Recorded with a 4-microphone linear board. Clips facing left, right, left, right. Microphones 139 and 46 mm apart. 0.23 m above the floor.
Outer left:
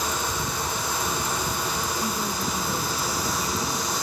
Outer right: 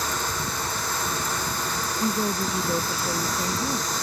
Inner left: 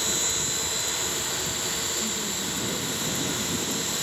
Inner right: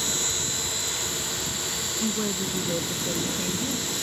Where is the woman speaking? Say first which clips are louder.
Outer right 3 dB, inner right 3 dB; 40° right (ahead or behind); by 3.9 s 45° right (ahead or behind).